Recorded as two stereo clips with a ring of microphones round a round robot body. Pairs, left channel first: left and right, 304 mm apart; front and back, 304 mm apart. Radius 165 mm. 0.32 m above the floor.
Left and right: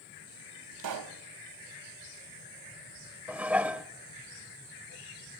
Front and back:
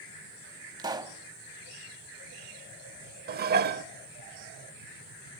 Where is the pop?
105° right, 1.0 m.